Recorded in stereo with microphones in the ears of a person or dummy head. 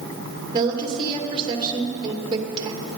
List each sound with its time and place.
0.5 s a woman speaking: 20° right (ahead or behind), 2 m